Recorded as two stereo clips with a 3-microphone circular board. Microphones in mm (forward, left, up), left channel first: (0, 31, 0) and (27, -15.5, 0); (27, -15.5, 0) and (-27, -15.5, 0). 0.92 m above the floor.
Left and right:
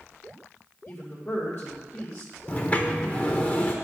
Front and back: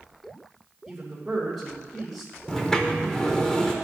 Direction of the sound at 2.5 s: 70° left.